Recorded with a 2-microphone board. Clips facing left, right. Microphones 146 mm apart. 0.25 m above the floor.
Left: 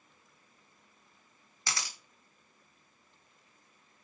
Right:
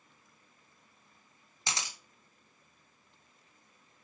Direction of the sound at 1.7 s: 20° right (ahead or behind).